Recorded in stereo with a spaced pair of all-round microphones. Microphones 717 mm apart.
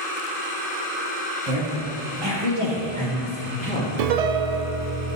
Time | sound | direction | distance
1.4 | a woman speaking | 50° right (ahead or behind) | 1.4 m
4.0 | a piano | 65° right (ahead or behind) | 0.5 m